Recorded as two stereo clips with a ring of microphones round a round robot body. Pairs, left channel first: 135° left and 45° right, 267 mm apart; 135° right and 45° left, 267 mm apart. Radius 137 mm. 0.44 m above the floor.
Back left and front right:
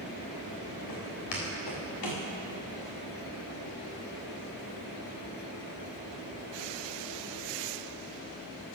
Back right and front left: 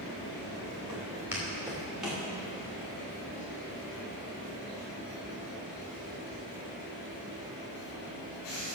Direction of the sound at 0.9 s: 125° left.